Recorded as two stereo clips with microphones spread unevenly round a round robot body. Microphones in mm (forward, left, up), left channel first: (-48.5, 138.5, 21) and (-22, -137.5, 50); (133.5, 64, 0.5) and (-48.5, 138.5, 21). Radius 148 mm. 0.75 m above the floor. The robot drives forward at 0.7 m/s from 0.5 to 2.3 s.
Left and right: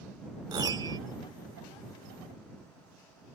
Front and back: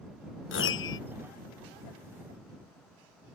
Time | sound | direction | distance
0.5 | a piano | 10° right | ?